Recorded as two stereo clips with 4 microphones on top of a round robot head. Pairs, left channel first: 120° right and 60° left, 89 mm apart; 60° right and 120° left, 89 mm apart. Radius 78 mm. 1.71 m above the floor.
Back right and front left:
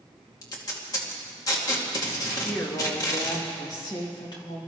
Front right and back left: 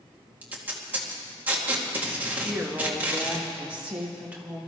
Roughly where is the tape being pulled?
Behind.